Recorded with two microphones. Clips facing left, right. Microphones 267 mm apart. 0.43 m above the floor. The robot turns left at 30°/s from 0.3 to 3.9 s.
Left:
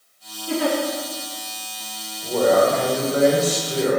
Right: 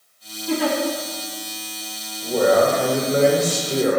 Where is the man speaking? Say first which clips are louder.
Even; 10° right, 1.0 m; by 4.0 s 60° right, 1.0 m.